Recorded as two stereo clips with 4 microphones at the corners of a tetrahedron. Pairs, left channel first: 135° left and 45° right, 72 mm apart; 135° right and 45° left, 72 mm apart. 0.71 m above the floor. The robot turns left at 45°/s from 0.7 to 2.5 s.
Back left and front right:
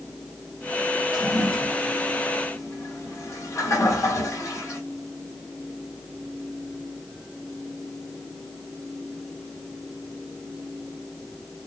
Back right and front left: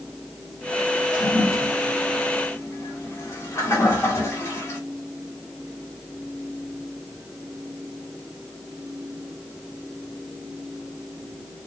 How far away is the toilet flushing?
About 1.8 m.